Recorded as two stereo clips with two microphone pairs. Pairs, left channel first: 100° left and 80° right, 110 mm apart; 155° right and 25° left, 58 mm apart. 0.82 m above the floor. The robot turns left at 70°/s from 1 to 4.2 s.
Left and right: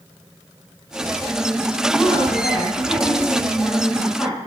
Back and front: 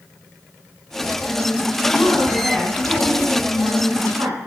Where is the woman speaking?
175° right, 6.5 m; by 4.4 s 25° left, 6.5 m.